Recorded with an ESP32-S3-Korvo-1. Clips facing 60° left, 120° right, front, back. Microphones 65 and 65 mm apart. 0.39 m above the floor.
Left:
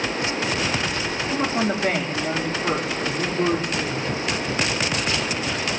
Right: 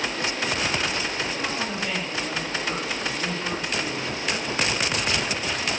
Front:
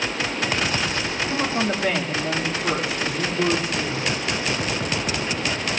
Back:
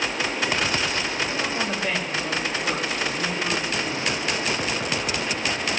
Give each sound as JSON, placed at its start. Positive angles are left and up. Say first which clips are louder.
{"t": 1.3, "sound": "a woman speaking", "louder": "left 6 dB, front 3 dB", "azimuth_deg": 20, "distance_m": 4.0}